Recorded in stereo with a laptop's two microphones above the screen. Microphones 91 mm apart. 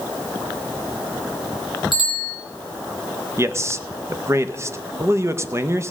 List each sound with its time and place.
1.9 s a bicycle bell: 65° right (ahead or behind), 3.5 m
3.4 s a man speaking: 30° right (ahead or behind), 0.6 m